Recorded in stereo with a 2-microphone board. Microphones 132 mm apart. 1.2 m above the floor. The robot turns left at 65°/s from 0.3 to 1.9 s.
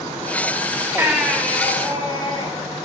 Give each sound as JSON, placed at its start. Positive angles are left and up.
{"t": 1.0, "sound": "a baby crying", "azimuth_deg": -160, "distance_m": 1.9}